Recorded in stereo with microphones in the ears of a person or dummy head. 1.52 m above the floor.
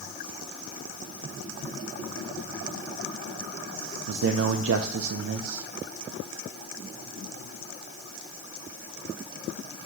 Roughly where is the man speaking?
Right.